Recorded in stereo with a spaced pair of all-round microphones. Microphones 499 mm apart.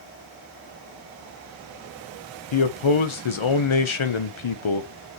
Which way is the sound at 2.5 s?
65° left (ahead or behind).